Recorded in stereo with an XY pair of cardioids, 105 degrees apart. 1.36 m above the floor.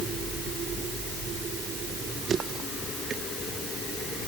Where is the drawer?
No drawer in this recording.